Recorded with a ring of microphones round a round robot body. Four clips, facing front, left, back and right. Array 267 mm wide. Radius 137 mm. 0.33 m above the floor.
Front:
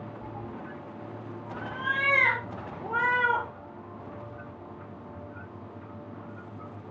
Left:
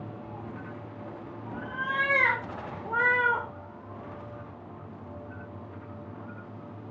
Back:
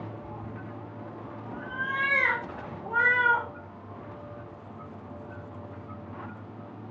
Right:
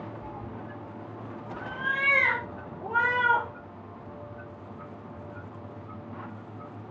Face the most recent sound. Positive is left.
turn(degrees=-50)